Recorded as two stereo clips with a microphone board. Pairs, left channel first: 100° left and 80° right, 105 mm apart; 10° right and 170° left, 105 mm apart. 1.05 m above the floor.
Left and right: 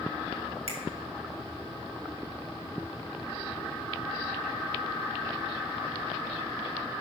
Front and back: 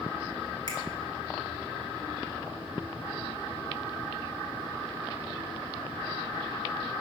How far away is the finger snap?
About 1.7 m.